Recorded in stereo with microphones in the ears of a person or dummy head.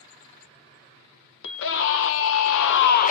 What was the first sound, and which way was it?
A scream, 70° left (ahead or behind).